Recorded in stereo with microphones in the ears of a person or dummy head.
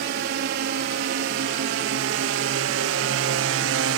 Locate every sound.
0.0 s a drone: 60° right (ahead or behind); by 4.0 s 65° right (ahead or behind)